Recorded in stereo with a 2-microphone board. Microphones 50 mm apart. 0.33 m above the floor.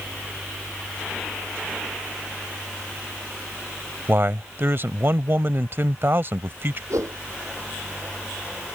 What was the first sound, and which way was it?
A man speaking, 50° right (ahead or behind).